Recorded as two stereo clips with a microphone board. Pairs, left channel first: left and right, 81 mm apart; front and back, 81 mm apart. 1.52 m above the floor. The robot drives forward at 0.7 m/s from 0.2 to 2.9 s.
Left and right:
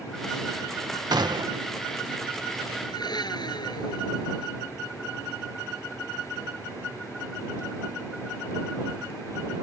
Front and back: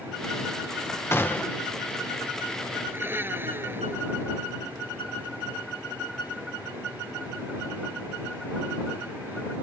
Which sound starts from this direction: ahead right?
A gunshot, at 1.1 s.